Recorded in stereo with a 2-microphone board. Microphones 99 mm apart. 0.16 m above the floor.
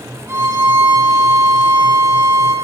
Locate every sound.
0.3 s a violin: 30° right (ahead or behind), 2.5 m